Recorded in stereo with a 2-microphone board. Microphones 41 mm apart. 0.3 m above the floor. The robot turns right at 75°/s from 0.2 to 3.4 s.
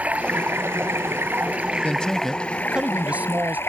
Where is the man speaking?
135° left; by 3.6 s 105° right.